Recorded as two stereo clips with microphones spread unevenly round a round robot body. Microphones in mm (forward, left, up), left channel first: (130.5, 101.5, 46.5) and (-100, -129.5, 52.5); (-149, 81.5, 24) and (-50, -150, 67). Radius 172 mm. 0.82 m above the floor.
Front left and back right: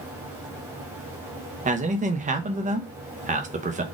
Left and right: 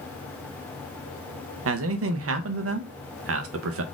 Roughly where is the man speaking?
Right.